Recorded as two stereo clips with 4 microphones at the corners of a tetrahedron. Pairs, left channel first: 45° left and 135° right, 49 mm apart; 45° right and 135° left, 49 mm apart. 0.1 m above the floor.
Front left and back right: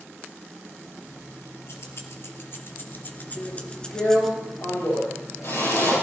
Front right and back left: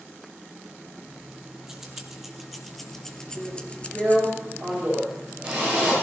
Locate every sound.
1.1 s keys jangling: 60° left, 2.5 m; by 4.3 s 40° right, 1.2 m
3.4 s a drill: 65° left, 9 m